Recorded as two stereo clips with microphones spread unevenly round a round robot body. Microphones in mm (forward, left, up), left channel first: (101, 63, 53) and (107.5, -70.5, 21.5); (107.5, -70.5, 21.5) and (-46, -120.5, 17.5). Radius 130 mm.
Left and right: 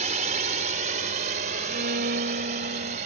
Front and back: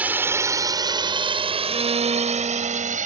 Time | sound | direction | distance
0.0 | a drone | 85° right | ?
1.7 | a violin | 105° right | ?